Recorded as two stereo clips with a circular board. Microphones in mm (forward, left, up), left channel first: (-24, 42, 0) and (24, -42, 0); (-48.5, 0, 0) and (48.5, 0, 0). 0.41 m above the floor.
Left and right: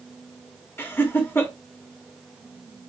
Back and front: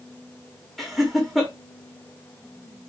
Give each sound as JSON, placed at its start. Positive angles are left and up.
{"t": 0.8, "sound": "laughter", "azimuth_deg": 90, "distance_m": 1.1}